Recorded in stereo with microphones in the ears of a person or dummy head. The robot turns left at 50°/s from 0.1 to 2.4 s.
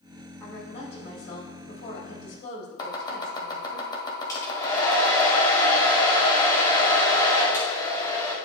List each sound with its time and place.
0.4 s a woman speaking: 160° left, 3.5 m; by 3.8 s 60° left, 3.5 m
2.8 s chopping: 20° left (ahead or behind), 1.7 m
4.3 s a hair dryer: 20° left (ahead or behind), 1.9 m